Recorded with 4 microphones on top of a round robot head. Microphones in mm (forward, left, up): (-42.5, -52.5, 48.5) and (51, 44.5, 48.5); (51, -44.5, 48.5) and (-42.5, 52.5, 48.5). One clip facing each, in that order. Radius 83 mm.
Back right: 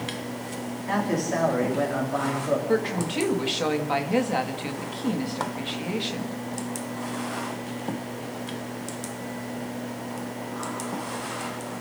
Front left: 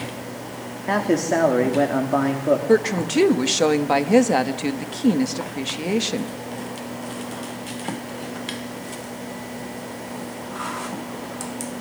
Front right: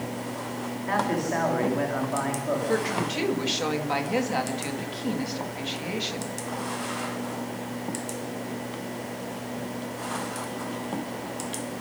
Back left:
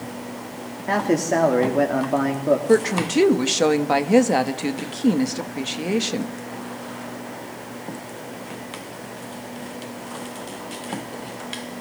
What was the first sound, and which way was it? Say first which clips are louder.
A man speaking: front left 6 dB, back left 6 dB; 90° left.